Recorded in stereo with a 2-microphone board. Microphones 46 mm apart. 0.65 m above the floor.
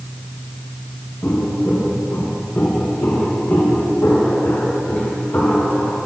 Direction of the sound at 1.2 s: 55° left (ahead or behind).